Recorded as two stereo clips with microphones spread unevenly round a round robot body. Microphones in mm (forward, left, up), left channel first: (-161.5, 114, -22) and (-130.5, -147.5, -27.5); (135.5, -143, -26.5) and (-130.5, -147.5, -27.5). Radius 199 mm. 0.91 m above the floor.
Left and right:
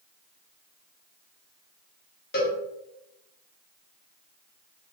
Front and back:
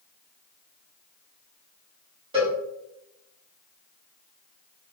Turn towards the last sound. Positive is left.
turn(degrees=120)